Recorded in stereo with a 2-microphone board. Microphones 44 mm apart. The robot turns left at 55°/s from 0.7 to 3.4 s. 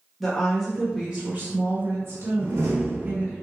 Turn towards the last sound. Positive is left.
turn(degrees=-130)